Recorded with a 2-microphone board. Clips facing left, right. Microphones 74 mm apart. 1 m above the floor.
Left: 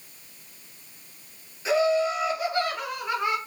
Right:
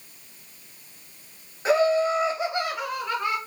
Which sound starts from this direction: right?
Laughter, at 1.6 s.